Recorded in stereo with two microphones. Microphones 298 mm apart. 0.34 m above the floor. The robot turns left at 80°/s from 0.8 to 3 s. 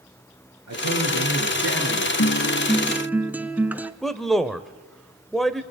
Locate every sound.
0.7 s a man speaking: 65° right, 5 m; by 2.1 s 170° right, 5 m
2.2 s a guitar: 60° left, 0.7 m; by 3.9 s 5° right, 0.7 m
4.0 s a man speaking: centre (ahead or behind), 1.0 m